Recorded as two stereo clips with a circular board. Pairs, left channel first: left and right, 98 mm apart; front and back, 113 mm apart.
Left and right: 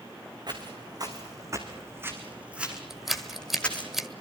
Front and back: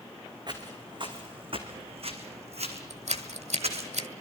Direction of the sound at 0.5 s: 130° right.